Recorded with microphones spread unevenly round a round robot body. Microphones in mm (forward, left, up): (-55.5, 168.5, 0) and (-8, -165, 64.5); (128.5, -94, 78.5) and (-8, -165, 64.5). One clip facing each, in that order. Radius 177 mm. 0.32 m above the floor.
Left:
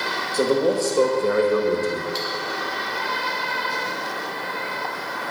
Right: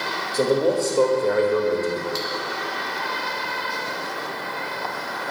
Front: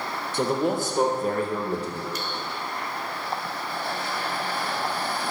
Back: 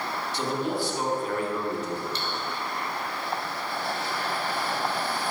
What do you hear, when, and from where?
0.3 s a man speaking: 20° left, 1.7 m; by 2.0 s 75° left, 1.5 m
2.1 s cutlery clinking: 90° right, 1.8 m